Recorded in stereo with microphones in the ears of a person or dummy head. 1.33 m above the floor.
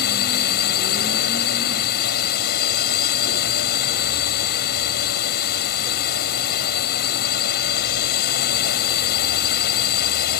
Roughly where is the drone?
Left.